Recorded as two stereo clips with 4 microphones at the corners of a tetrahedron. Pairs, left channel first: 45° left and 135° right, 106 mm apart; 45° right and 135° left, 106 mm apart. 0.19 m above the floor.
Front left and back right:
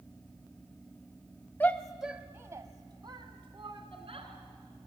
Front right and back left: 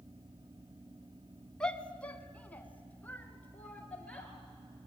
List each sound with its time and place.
1.6 s a shout: 20° left, 1.1 m; by 4.3 s 120° right, 2.5 m